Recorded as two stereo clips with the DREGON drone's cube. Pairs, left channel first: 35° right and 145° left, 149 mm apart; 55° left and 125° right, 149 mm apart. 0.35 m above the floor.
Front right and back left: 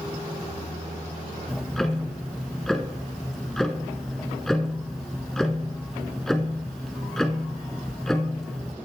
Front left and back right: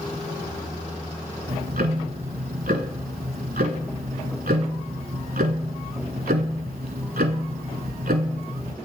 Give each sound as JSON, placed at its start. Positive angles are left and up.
{"t": 1.5, "sound": "ticking", "azimuth_deg": -120, "distance_m": 0.7}